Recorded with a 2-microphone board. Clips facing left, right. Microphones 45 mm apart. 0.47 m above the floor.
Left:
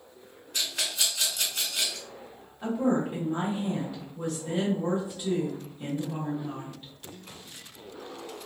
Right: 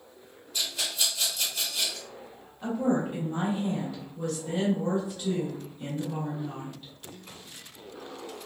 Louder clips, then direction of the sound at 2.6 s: Left 1 dB; 15° left (ahead or behind).